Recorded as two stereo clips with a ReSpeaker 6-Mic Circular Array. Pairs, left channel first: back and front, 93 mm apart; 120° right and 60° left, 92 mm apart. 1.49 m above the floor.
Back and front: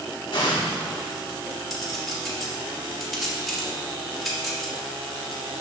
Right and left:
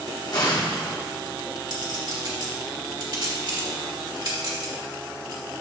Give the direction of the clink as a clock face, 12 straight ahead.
9 o'clock.